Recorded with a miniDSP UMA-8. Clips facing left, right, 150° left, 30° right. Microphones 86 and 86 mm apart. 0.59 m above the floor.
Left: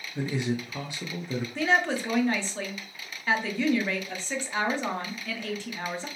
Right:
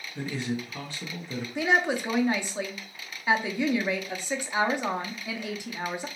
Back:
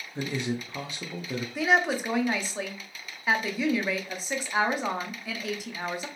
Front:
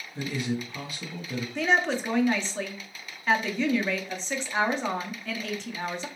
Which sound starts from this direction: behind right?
A woman speaking, at 1.6 s.